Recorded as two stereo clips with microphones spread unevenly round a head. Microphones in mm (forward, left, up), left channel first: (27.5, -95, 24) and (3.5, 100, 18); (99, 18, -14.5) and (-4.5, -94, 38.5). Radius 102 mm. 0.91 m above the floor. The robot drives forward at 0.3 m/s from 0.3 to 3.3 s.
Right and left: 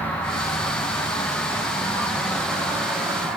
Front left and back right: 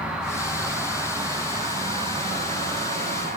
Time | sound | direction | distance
0.0 | an insect | 5° right | 1.0 m